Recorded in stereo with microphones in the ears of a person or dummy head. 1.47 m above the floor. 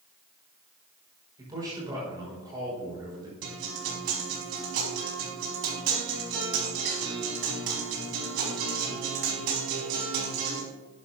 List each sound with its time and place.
1.4 s a man speaking: 20° right (ahead or behind), 5.5 m
3.4 s a guitar: 55° right (ahead or behind), 4.5 m